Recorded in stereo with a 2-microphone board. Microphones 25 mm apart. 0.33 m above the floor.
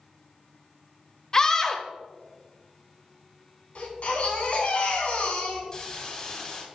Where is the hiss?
35° left (ahead or behind), 2 m.